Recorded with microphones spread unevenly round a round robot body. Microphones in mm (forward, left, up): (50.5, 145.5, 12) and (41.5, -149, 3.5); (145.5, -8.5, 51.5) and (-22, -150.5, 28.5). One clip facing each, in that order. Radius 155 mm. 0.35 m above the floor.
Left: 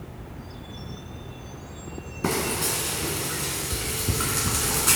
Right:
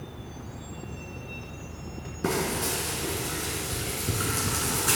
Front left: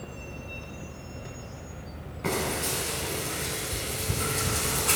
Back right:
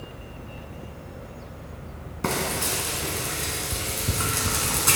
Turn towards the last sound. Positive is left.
turn(degrees=170)